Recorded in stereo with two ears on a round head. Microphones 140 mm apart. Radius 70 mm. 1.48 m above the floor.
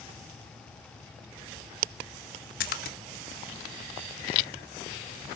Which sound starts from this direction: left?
A splash, at 2.6 s.